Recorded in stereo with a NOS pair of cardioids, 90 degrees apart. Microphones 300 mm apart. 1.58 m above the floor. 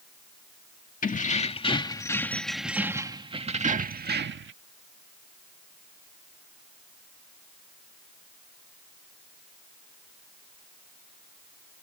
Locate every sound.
1.0 s keys jangling: 30° left; by 4.5 s 45° right